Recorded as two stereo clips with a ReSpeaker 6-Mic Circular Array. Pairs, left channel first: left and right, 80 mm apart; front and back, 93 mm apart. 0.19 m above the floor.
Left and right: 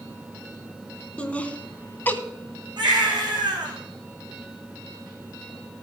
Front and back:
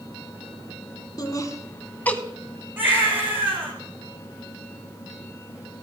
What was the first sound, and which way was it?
Laughter, 25° left.